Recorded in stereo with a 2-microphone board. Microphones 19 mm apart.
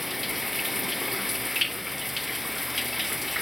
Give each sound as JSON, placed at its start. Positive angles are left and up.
{"t": 0.0, "sound": "running water", "side_deg": -10}